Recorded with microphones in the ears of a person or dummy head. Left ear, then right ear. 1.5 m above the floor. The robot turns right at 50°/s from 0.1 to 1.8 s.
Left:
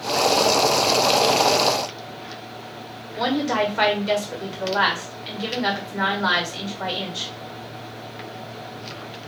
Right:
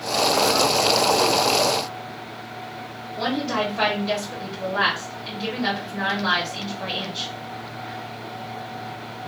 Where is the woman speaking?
35° left (ahead or behind), 1.5 m.